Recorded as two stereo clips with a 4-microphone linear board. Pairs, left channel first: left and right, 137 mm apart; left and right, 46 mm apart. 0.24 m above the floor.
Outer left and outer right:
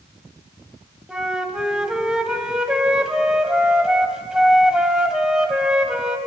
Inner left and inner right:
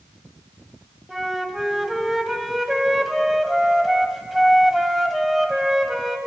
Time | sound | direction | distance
1.1 | a flute | 5° right (ahead or behind) | 1.7 m